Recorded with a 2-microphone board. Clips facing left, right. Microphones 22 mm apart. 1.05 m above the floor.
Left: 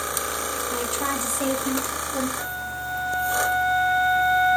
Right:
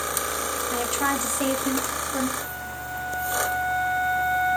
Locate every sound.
0.7 s a woman speaking: 25° right (ahead or behind), 1.9 m
2.4 s a flute: 70° left (ahead or behind), 1.8 m